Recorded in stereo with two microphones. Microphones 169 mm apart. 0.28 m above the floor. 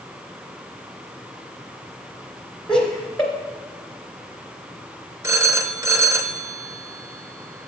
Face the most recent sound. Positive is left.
turn(degrees=-15)  # may be behind; listen again after turning